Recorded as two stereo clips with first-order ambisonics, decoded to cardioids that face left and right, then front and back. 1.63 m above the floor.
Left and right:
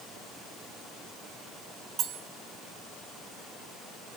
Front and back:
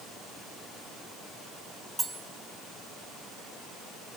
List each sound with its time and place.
2.0 s cutlery clinking: 100° right, 1.1 m